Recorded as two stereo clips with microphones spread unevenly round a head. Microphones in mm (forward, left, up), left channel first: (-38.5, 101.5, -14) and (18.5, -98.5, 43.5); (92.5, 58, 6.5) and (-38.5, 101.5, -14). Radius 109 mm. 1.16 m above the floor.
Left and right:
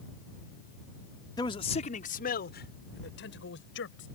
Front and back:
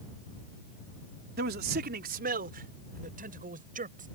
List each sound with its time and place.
1.4 s a man speaking: straight behind; by 4.1 s 140° left